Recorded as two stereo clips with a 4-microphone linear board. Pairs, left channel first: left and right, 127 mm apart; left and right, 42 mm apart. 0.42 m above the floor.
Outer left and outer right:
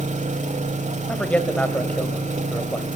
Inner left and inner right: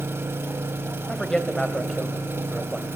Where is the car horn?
No car horn in this recording.